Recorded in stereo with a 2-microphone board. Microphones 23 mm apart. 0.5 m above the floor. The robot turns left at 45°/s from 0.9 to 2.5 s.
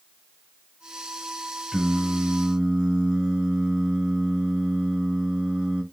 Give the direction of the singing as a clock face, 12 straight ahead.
12 o'clock.